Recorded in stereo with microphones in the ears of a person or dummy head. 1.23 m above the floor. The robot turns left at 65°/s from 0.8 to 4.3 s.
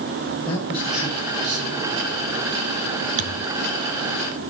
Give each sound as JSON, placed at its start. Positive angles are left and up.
{"t": 0.5, "sound": "a man speaking", "azimuth_deg": 25, "distance_m": 8.5}
{"t": 3.2, "sound": "a thud", "side_deg": -40, "distance_m": 3.5}